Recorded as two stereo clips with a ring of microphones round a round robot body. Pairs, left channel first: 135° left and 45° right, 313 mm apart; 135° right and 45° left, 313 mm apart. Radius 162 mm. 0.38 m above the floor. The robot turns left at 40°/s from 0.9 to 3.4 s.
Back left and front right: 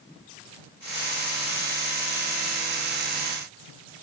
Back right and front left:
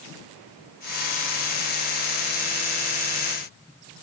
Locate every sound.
Only background noise.